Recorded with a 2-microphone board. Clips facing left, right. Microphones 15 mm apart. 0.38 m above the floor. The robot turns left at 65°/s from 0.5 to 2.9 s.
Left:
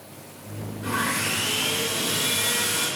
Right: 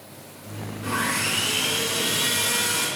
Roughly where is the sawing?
Ahead right.